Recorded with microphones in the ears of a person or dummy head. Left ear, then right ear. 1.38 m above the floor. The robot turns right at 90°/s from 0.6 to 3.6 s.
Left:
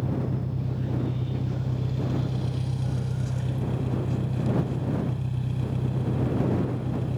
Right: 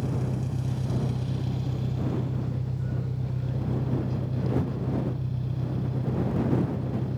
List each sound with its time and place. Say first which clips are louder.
0.0 s an engine running: left 1 dB; 120° right; by 7.2 s 150° left